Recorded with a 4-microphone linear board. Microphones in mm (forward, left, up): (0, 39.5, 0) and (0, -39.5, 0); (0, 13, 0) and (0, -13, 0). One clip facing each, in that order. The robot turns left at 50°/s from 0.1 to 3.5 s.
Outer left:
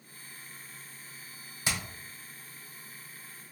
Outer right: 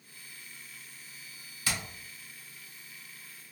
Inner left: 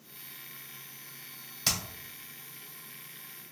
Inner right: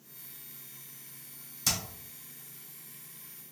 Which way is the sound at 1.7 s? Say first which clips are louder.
Outer left 1 dB, inner left 1 dB; 25° left (ahead or behind).